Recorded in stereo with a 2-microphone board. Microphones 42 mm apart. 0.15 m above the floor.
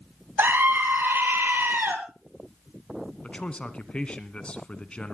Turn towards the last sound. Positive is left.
turn(degrees=25)  # may be behind; listen again after turning